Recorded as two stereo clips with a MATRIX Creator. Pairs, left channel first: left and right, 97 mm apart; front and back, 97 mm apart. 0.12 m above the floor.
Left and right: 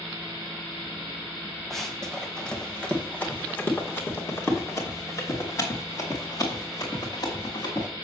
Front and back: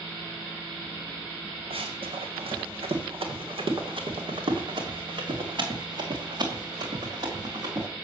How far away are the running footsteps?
About 2.5 m.